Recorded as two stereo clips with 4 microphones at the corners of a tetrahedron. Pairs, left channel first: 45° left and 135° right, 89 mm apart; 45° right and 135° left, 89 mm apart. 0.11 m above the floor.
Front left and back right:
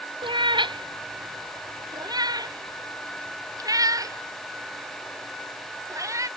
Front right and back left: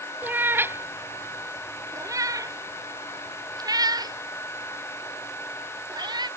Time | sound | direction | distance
0.2 | a cat meowing | 155° right | ?